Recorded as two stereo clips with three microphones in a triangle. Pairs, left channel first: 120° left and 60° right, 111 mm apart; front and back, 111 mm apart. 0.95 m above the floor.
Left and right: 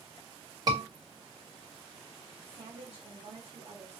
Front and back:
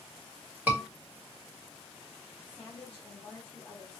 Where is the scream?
110° right, 2 m.